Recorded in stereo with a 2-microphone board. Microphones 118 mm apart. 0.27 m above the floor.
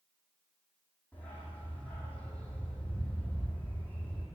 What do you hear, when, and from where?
1.1 s a dog barking: 10° left (ahead or behind), 2.5 m